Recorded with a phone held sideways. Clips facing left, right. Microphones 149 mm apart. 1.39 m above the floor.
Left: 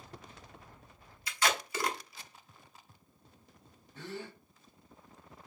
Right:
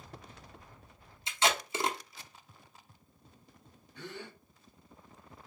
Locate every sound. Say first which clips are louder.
1.3 s tape being pulled: right 2 dB; 25° right (ahead or behind), 0.7 m
4.0 s a gasp: left 2 dB; 40° left (ahead or behind), 1.6 m